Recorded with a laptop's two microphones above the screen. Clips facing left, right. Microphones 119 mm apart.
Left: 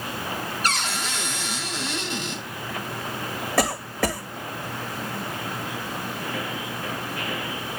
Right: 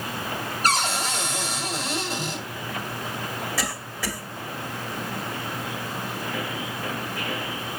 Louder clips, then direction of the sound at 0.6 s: Right 6 dB; 45° right (ahead or behind).